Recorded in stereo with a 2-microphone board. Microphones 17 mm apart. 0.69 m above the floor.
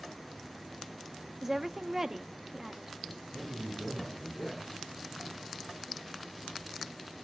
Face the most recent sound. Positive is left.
turn(degrees=-5)  # may be behind; listen again after turning